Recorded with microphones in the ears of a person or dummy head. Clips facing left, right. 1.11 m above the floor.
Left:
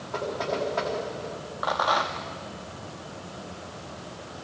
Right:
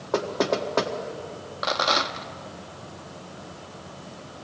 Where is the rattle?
35° right (ahead or behind), 0.7 m.